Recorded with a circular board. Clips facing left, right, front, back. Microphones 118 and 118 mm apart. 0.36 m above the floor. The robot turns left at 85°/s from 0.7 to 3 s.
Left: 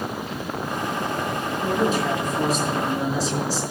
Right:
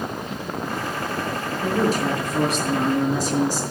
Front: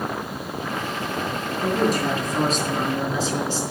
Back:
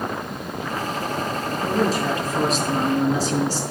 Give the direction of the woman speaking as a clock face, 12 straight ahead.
12 o'clock.